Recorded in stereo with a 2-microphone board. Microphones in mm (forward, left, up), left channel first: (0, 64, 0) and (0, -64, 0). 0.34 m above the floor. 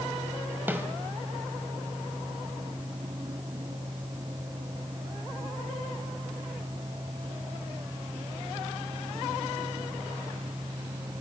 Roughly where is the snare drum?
Centre.